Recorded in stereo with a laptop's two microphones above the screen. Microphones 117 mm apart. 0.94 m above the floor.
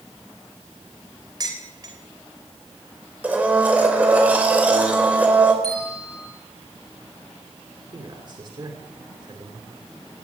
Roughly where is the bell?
Left.